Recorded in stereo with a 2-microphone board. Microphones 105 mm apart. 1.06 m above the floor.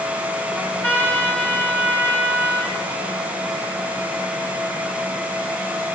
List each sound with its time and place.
0.6 s a trumpet: 20° left (ahead or behind), 2.5 m